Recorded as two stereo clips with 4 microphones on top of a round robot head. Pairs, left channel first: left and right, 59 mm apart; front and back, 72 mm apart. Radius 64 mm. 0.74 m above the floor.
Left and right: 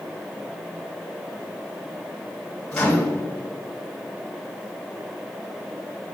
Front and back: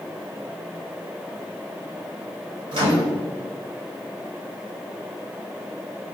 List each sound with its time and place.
2.7 s a microwave: 175° left, 3 m